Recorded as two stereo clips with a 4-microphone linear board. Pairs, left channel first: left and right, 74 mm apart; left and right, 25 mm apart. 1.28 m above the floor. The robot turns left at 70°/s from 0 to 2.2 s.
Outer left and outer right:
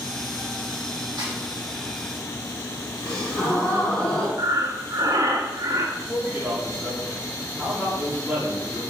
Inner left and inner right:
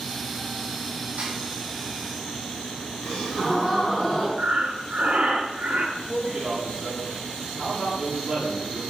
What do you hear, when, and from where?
1.2 s a snare drum: 85° right, 3.5 m; by 1.3 s 75° right (ahead or behind), 3.5 m
3.0 s a gasp: 10° left (ahead or behind), 4 m
4.4 s breathing: 50° right (ahead or behind), 1.1 m
6.0 s a man speaking: 15° right (ahead or behind), 2.5 m